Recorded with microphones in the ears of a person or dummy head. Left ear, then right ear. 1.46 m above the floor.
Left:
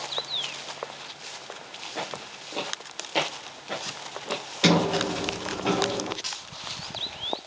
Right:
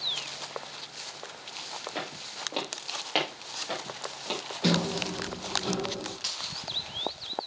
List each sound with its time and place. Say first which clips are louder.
1.9 s footsteps: left 2 dB; 40° right (ahead or behind), 2.0 m; by 4.4 s 25° right (ahead or behind), 3 m
4.6 s a sliding door: left 7 dB; 65° left (ahead or behind), 1.0 m
6.2 s a dropped coin: even; 5° right (ahead or behind), 2 m